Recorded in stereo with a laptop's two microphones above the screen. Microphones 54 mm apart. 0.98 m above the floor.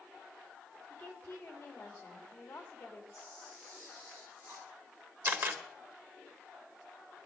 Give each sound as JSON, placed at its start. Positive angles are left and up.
{"t": 0.9, "sound": "a woman speaking", "side_deg": 30, "distance_m": 1.8}
{"t": 3.1, "sound": "a camera shutter", "side_deg": -25, "distance_m": 4.5}
{"t": 5.2, "sound": "a camera shutter", "side_deg": -50, "distance_m": 1.4}